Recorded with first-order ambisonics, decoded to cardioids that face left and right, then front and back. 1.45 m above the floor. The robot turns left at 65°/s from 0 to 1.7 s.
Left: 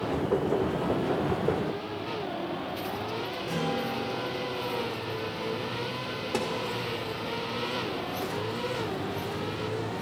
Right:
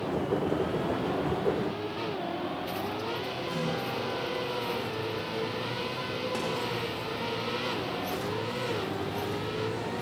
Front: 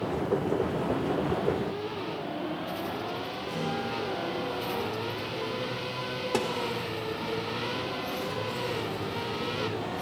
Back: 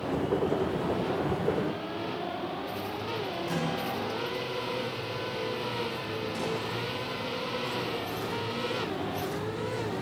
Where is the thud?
30° left, 2 m.